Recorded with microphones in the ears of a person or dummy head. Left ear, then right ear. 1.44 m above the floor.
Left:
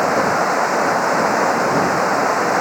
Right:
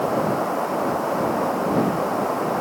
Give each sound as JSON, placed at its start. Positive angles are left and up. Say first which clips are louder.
{"t": 0.0, "sound": "running water", "louder": "left 6 dB", "side_deg": 55}